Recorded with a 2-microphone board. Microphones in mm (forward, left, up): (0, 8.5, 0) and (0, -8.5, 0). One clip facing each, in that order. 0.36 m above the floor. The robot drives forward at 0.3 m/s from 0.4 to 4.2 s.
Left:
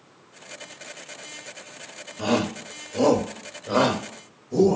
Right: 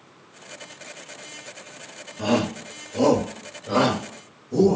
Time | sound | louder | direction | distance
2.2 | a shout | right 1 dB | 25° left (ahead or behind) | 1.3 m